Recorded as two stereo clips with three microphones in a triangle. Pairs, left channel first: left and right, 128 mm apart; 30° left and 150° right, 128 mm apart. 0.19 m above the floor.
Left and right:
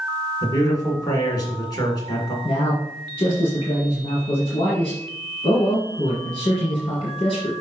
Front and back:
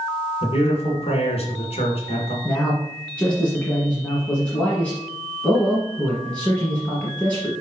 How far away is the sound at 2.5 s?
About 1.6 m.